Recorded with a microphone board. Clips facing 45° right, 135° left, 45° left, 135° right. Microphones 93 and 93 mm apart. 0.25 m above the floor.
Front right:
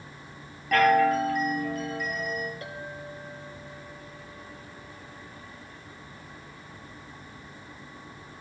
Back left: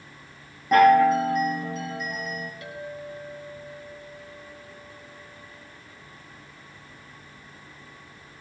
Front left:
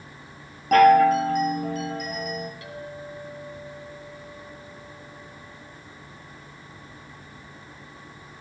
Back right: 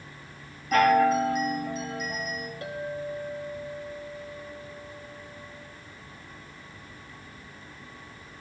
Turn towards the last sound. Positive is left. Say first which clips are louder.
# back left 2 dB, back right 4 dB
turn(degrees=-90)